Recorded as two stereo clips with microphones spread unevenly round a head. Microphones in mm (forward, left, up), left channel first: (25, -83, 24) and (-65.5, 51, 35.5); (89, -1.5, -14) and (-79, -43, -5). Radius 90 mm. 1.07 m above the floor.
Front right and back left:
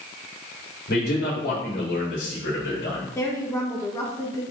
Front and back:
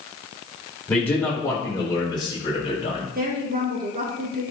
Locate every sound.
0.9 s a man speaking: 70° right, 3.5 m; by 3.0 s 40° right, 3.5 m
3.1 s a woman speaking: 130° right, 1.2 m